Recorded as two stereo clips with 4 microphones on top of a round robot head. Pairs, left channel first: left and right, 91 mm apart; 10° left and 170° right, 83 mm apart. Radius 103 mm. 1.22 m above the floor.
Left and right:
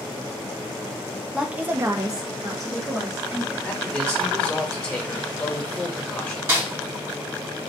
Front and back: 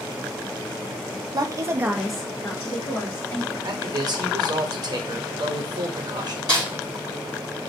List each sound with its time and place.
1.3 s a woman speaking: 170° right, 0.6 m; by 3.5 s 35° right, 1.3 m
3.6 s a man speaking: 165° left, 0.9 m
6.5 s a snare drum: 35° right, 1.5 m